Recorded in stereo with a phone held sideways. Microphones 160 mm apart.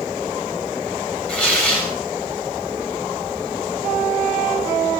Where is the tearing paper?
10° left (ahead or behind), 3 m.